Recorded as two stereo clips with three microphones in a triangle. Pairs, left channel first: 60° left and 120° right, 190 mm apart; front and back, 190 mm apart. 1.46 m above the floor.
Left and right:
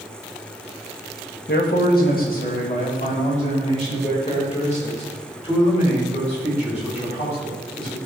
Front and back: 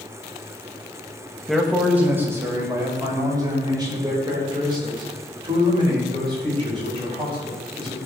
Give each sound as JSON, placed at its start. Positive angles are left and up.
{"t": 1.5, "sound": "a man speaking", "azimuth_deg": 90, "distance_m": 1.6}